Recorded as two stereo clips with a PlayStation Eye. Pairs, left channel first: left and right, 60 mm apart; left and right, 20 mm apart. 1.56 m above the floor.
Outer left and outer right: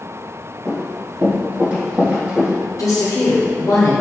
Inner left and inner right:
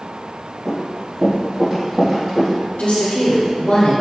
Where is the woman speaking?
70° left (ahead or behind), 1.1 m.